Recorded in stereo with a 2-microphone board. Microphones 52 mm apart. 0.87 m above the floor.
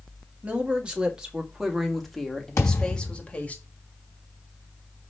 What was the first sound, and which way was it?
A woman speaking, 25° right (ahead or behind).